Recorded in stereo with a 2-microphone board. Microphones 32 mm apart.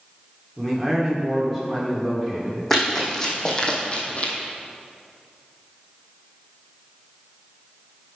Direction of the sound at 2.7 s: 5° left (ahead or behind).